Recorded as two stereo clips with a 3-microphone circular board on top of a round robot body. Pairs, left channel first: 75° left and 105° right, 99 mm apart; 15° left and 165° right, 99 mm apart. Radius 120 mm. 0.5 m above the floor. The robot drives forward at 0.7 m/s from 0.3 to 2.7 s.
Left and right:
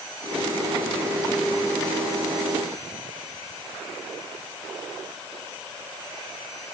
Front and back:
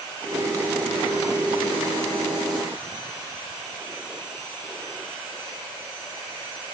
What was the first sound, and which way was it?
Only background noise.